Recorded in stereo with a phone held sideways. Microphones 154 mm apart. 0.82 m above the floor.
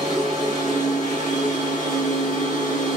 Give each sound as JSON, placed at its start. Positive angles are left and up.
{"t": 0.0, "sound": "a machine running", "side_deg": -45, "distance_m": 1.7}